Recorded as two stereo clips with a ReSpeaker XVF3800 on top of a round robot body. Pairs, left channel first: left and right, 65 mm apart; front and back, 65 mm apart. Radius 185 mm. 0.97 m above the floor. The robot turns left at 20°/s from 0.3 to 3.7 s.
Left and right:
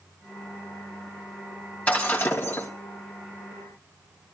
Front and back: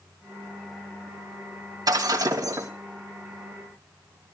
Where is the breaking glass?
160° left, 2.5 m; by 2.7 s 145° left, 2.5 m.